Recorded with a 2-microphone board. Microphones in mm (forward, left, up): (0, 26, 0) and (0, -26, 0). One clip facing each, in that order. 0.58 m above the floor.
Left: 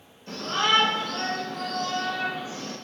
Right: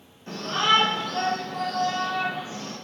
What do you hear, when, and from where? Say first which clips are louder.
0.3 s a shout: right 2 dB; 50° right (ahead or behind), 1.7 m; by 2.8 s 55° right (ahead or behind), 3 m